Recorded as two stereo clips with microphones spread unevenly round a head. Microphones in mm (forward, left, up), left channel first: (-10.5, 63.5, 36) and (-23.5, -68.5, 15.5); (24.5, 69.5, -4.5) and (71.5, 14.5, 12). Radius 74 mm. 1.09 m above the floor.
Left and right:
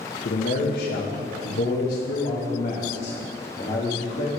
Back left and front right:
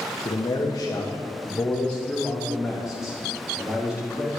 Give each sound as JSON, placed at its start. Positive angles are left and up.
{"t": 0.2, "sound": "a man speaking", "azimuth_deg": 110, "distance_m": 1.2}